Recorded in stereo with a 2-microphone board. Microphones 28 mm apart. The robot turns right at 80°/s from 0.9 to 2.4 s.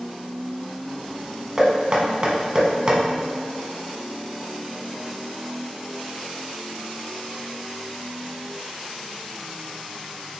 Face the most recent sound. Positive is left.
turn(degrees=-30)  # may be behind; listen again after turning